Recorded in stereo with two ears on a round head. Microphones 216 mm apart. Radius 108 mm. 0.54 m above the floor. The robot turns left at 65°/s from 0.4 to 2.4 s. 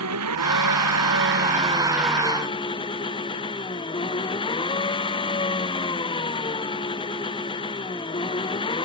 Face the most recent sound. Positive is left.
turn(degrees=160)